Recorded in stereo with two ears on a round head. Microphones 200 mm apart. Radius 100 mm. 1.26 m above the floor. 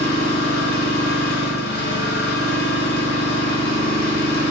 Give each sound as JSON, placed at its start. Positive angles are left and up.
{"t": 0.0, "sound": "an engine running", "side_deg": 50, "distance_m": 1.3}